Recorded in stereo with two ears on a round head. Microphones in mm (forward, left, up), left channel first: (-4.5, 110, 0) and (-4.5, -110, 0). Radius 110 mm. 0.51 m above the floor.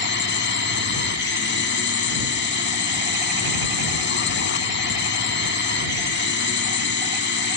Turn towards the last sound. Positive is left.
turn(degrees=45)  # may be behind; listen again after turning